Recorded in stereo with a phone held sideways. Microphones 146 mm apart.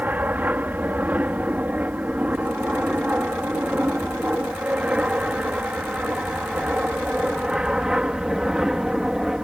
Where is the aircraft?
10° right (ahead or behind); by 9.4 s 5° right (ahead or behind).